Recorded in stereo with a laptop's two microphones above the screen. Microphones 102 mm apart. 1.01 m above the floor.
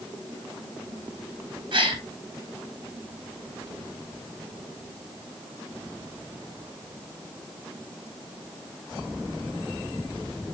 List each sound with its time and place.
1.7 s a gasp: 50° right (ahead or behind), 3 m